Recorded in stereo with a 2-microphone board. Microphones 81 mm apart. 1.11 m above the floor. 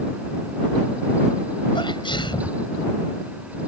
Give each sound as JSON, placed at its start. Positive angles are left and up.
{"t": 1.8, "sound": "a sneeze", "side_deg": 80}